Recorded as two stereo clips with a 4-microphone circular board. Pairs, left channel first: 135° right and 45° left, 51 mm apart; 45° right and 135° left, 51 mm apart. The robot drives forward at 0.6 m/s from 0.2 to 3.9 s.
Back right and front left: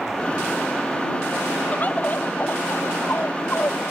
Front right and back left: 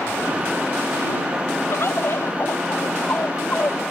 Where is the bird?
80° right; by 3.8 s 95° right.